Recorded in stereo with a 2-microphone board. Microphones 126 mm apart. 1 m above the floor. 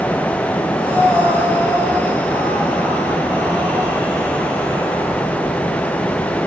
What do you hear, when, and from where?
0.8 s breathing: 25° right (ahead or behind), 7 m